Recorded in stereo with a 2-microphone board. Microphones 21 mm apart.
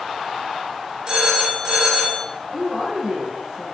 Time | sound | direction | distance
1.1 | a phone ringing | 50° right (ahead or behind) | 3 m
2.5 | a woman speaking | 45° right (ahead or behind) | 2 m